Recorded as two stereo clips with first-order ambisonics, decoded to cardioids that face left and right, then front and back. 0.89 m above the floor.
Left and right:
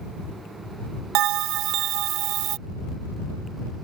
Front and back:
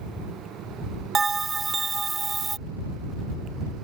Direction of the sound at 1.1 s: 110° right.